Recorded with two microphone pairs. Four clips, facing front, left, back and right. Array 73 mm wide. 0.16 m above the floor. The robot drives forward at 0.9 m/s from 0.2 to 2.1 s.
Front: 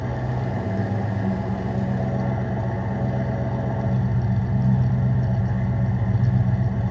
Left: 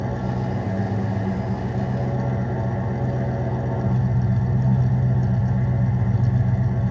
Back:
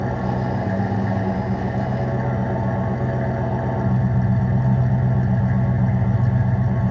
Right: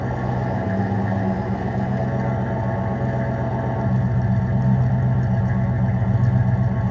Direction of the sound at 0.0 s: 145° right.